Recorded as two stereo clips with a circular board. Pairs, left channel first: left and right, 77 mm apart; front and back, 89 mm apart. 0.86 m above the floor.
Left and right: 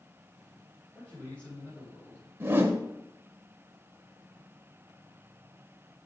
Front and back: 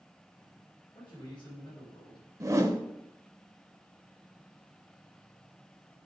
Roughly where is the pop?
I don't hear a pop.